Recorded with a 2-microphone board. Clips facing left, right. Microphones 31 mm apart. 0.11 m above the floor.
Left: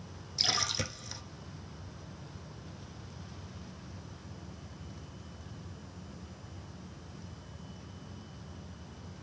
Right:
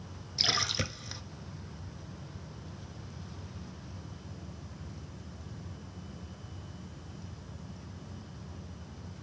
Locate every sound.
0.4 s a splash: 15° right (ahead or behind), 0.9 m